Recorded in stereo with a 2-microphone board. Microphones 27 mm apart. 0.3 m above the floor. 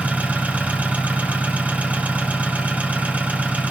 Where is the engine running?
85° right, 2.5 m.